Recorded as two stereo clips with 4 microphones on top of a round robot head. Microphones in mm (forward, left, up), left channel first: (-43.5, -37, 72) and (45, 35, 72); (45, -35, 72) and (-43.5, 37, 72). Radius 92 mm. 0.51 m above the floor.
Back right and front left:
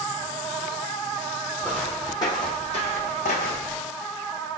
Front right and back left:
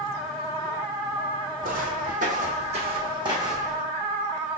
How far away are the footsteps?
About 1.2 m.